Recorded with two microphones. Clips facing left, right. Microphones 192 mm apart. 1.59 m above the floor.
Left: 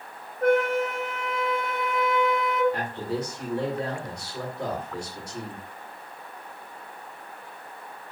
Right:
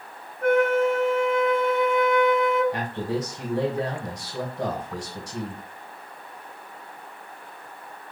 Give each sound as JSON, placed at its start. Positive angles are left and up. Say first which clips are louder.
{"t": 0.4, "sound": "a flute", "louder": "right 2 dB", "side_deg": 35, "distance_m": 1.0}
{"t": 2.7, "sound": "a man speaking", "louder": "right 2 dB", "side_deg": -85, "distance_m": 1.4}